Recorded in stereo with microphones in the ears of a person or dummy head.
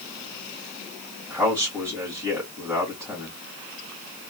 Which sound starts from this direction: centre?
A man speaking, at 1.3 s.